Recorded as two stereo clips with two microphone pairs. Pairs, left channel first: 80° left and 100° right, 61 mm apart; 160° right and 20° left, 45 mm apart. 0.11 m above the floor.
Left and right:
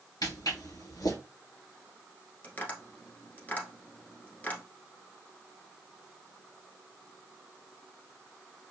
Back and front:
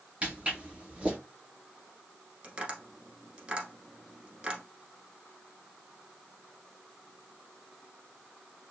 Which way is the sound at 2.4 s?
60° left.